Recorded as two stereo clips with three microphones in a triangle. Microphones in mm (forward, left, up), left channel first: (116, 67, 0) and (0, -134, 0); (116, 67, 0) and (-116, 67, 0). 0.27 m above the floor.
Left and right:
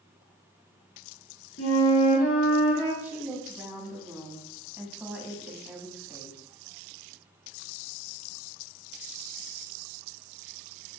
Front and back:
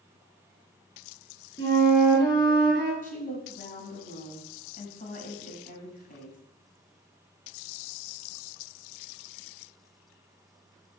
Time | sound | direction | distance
1.6 | a flute | 70° left | 3.5 m
3.0 | a woman speaking | 40° right | 1.7 m